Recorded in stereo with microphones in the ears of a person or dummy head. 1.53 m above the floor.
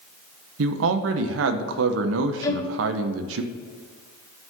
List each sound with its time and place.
0.6 s a man speaking: 65° right (ahead or behind), 0.7 m
2.4 s a violin: 20° left (ahead or behind), 1.1 m